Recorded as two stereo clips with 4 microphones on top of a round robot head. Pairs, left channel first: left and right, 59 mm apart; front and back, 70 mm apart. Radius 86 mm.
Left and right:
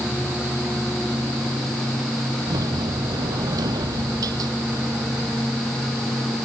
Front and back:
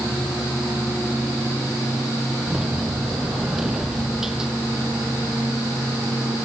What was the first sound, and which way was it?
A sliding door, 95° right.